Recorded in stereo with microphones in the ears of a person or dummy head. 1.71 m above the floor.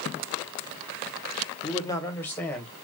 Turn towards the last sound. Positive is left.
turn(degrees=5)  # may be behind; listen again after turning